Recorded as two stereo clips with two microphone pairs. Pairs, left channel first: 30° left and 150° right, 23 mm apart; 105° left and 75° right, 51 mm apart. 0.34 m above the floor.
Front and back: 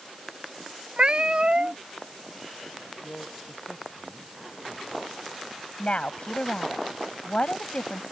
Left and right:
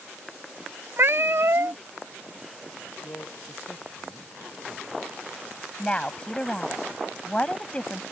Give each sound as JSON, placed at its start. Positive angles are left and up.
{"t": 1.0, "sound": "a cat meowing", "azimuth_deg": -105}
{"t": 3.0, "sound": "a man speaking", "azimuth_deg": 80}
{"t": 5.8, "sound": "a woman speaking", "azimuth_deg": 40}